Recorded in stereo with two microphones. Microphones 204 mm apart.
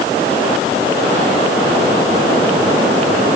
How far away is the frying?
No frying in this recording.